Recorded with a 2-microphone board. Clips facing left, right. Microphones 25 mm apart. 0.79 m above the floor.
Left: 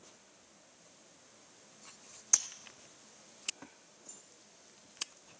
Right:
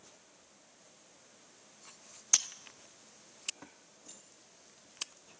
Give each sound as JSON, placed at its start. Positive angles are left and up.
{"t": 2.3, "sound": "breaking glass", "side_deg": -55, "distance_m": 0.5}
{"t": 4.1, "sound": "keys jangling", "side_deg": -65, "distance_m": 1.4}